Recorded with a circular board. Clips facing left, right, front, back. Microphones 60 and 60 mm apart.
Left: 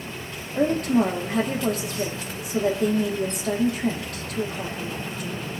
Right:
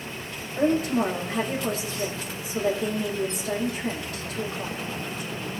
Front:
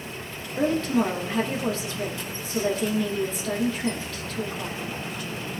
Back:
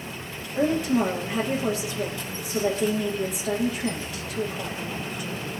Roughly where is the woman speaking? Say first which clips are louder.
Left 2 dB, back 1 dB; left.